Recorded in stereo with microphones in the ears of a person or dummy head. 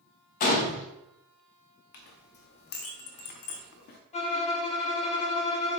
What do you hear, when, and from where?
0.4 s a gunshot: 45° left (ahead or behind), 0.7 m
1.9 s a clink: 50° left (ahead or behind), 0.5 m
4.1 s a violin: 30° left (ahead or behind), 0.6 m